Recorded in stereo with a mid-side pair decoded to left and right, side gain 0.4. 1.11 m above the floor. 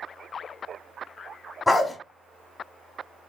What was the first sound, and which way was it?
A dog barking, 20° left.